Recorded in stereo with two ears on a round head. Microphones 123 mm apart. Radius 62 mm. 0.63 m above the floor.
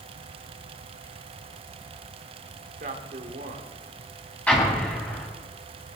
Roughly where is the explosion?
Centre.